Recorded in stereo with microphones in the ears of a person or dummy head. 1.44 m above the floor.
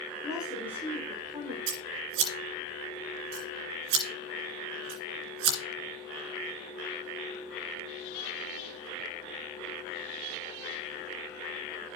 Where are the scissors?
75° right (ahead or behind), 2.5 m.